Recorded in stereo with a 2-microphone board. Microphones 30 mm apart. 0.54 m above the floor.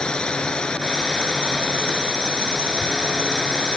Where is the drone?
30° left (ahead or behind).